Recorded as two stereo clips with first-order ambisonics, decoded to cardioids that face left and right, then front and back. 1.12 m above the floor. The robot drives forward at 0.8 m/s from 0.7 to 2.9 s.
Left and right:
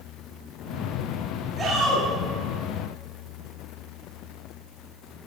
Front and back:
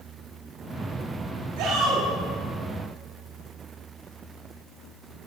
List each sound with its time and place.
1.6 s a shout: 165° right, 9.5 m